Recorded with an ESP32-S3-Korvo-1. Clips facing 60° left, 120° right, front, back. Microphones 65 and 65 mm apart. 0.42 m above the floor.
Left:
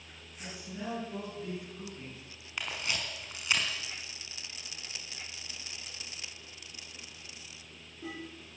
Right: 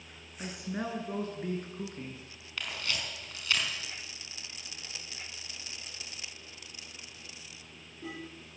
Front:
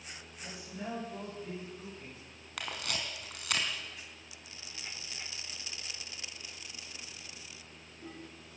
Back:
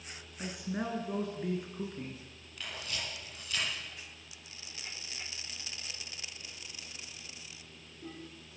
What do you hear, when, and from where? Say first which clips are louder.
0.4 s a man speaking: right 5 dB, back 7 dB; 150° right, 7 m; by 2.2 s 170° right, 6.5 m
2.6 s a camera shutter: left 1 dB, front 3 dB; 10° right, 5 m